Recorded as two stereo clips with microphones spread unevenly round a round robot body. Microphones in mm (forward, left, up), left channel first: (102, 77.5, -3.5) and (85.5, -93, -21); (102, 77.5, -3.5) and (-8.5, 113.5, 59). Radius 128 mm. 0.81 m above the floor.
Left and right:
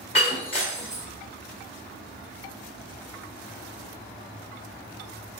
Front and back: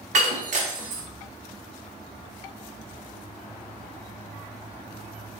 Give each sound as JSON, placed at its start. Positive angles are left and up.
{"t": 0.1, "sound": "breaking glass", "azimuth_deg": 155, "distance_m": 1.2}